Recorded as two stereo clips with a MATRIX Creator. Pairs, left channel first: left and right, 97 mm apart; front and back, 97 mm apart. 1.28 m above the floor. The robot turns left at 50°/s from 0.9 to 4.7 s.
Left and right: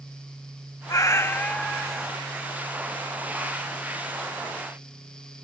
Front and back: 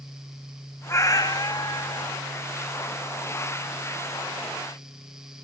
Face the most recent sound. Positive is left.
turn(degrees=-140)